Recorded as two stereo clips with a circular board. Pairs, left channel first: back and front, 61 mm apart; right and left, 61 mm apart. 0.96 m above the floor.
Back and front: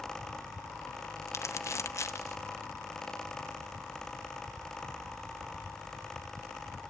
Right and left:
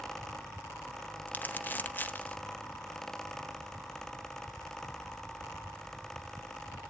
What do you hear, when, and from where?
1.3 s crumpling: 145° right, 0.8 m